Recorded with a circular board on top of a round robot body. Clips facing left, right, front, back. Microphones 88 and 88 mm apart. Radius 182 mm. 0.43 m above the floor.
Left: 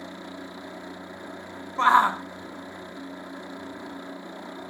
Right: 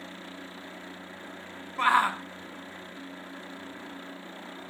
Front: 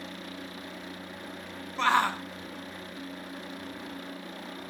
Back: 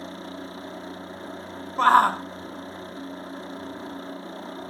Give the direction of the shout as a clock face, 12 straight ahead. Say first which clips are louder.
Left 5 dB, back 8 dB; 7 o'clock.